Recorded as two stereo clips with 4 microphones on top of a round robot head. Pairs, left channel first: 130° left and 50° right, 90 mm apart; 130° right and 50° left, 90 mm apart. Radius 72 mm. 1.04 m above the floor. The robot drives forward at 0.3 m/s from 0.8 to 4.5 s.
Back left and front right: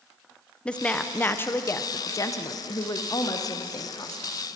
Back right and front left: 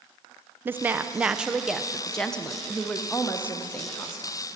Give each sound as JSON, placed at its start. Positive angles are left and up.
{"t": 0.7, "sound": "a woman speaking", "azimuth_deg": 65, "distance_m": 0.6}